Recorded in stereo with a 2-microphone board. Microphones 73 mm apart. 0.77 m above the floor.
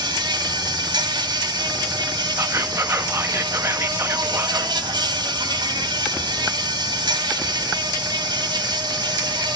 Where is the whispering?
40° right (ahead or behind), 1.2 m.